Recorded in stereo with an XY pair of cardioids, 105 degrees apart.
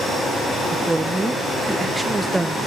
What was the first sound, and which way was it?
A woman speaking, 10° right.